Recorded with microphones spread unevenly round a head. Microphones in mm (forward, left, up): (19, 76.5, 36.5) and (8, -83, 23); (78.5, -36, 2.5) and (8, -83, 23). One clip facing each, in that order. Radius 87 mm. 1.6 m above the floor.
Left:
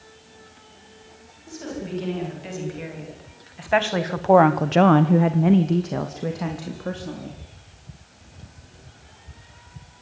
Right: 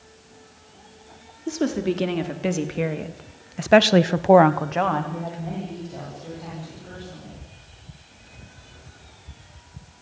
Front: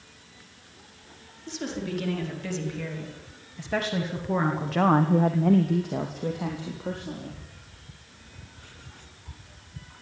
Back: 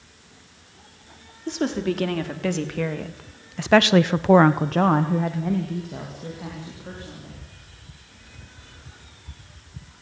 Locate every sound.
1.5 s a woman speaking: 120° right, 4.5 m; by 7.4 s 80° left, 4 m